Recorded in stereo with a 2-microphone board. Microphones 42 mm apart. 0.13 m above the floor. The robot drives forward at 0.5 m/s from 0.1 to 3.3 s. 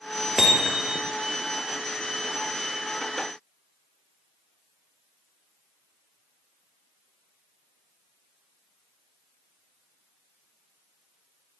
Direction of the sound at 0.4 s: 15° right (ahead or behind).